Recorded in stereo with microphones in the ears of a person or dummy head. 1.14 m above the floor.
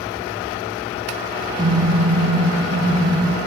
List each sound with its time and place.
1.6 s a car horn: 25° right (ahead or behind), 4.5 m